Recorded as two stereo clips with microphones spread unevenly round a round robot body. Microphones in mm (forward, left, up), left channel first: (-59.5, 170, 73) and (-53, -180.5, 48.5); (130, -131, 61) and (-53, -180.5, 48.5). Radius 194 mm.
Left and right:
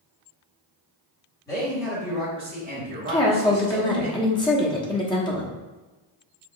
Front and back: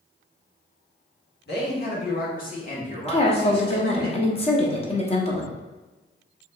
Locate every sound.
1.5 s a man speaking: 10° left, 1.9 m; by 4.1 s 50° right, 3 m
3.1 s a woman speaking: 20° left, 0.9 m